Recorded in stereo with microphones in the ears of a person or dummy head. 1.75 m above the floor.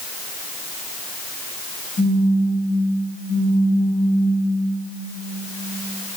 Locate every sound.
2.0 s a phone buzzing: 75° left (ahead or behind), 0.9 m